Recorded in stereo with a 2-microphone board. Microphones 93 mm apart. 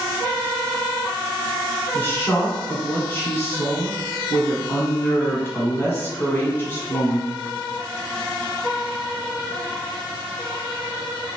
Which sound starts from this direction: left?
A woman speaking, at 1.9 s.